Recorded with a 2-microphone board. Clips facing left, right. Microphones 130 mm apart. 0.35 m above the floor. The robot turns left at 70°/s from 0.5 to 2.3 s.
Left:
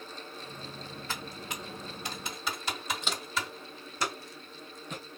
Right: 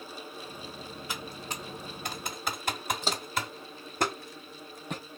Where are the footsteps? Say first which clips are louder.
Right 3 dB; 35° right (ahead or behind), 0.7 m; by 5.0 s 55° right (ahead or behind), 1.8 m.